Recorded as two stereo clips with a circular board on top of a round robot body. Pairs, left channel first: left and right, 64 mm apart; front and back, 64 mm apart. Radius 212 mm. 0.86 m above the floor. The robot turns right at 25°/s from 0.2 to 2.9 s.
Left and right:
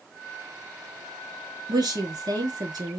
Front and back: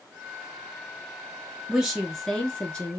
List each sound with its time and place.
1.7 s a woman speaking: 100° right, 1.9 m; by 3.0 s 70° right, 1.9 m